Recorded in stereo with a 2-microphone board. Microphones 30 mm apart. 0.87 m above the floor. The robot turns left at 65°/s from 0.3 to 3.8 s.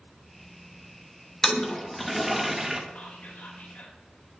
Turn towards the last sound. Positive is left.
turn(degrees=65)